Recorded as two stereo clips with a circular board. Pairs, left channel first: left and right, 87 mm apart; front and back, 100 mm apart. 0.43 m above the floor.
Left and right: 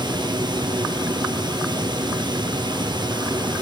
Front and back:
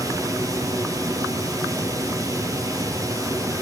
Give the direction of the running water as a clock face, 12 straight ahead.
4 o'clock.